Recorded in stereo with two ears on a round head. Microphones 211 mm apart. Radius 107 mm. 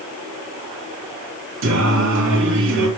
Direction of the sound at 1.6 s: 55° right (ahead or behind).